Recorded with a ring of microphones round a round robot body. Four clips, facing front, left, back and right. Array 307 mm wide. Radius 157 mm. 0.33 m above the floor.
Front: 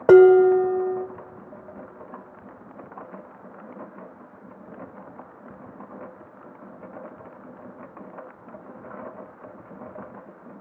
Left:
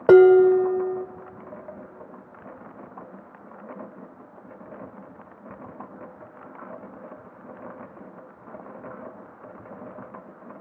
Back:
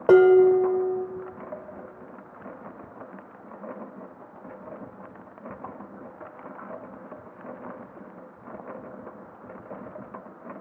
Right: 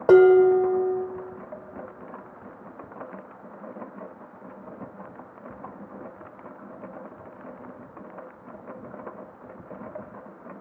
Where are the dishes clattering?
45° left, 0.7 m.